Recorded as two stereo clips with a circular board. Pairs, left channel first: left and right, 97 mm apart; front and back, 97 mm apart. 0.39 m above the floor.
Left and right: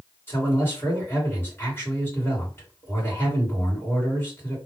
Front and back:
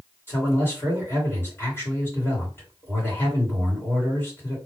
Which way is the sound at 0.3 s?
45° left.